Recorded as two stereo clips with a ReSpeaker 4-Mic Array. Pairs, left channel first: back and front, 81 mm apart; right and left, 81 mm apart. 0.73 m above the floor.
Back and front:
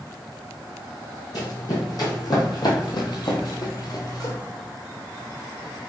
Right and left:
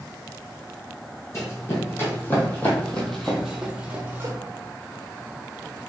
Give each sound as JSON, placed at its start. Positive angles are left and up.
{"t": 1.3, "sound": "running footsteps", "azimuth_deg": -140, "distance_m": 2.0}